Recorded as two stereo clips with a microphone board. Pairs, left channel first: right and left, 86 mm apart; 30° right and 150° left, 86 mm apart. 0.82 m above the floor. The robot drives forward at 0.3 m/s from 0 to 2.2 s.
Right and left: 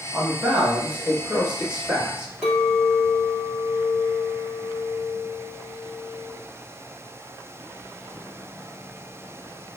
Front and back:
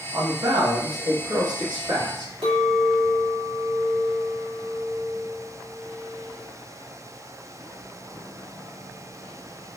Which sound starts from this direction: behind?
A clink, at 2.4 s.